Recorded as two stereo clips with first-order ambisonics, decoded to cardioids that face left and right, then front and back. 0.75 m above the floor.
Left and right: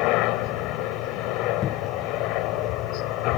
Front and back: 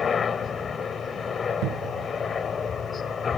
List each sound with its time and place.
0.0 s a helicopter: 70° left
1.6 s a cupboard door: 145° left